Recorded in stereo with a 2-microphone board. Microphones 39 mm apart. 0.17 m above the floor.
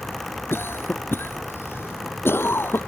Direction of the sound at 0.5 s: 70° left (ahead or behind).